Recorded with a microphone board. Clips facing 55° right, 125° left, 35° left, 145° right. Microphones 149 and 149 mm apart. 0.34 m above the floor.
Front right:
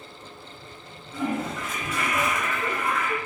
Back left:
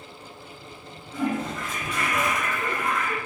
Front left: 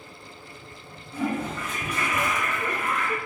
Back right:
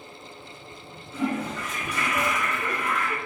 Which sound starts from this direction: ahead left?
A toilet flushing, at 1.1 s.